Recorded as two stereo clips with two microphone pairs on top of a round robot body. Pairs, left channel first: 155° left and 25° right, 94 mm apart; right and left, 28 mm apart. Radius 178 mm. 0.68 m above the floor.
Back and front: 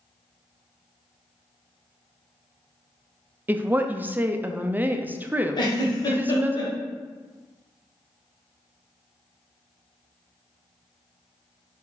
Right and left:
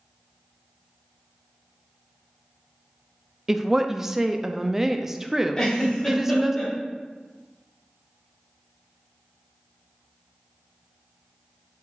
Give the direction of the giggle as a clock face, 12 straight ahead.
5 o'clock.